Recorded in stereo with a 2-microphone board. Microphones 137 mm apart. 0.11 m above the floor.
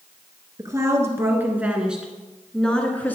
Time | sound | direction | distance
0.6 | a woman speaking | 25° right (ahead or behind) | 1.6 m